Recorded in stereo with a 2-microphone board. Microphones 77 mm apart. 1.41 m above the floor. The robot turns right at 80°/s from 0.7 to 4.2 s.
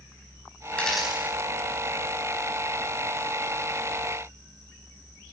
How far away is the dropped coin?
About 4 m.